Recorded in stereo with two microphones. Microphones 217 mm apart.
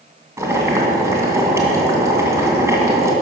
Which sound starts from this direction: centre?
Boiling, at 0.4 s.